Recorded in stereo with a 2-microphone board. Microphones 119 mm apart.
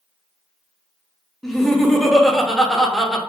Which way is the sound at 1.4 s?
5° left (ahead or behind).